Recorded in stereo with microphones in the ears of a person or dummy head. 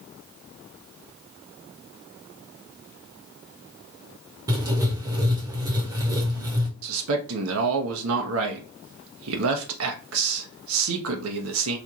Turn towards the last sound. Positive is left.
turn(degrees=-80)